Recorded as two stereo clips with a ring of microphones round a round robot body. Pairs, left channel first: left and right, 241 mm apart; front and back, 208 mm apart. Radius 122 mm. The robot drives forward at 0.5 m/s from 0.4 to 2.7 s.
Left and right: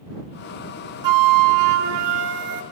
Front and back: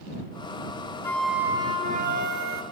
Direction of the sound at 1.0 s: 80° right.